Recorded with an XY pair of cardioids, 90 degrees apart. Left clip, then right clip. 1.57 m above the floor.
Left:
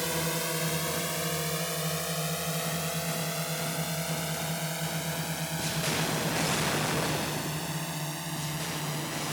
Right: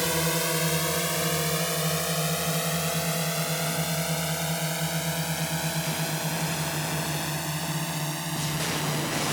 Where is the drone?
35° right; by 9.3 s 30° right.